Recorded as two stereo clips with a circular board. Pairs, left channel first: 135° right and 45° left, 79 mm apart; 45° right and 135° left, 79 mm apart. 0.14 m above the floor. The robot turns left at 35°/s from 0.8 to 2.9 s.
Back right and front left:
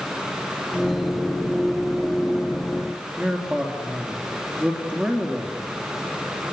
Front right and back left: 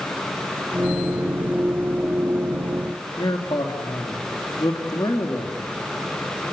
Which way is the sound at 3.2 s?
30° right.